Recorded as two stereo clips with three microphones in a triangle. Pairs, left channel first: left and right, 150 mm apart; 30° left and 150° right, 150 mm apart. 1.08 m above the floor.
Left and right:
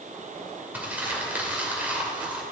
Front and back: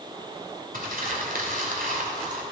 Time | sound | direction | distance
0.7 | crumpling | 170° right | 2.5 m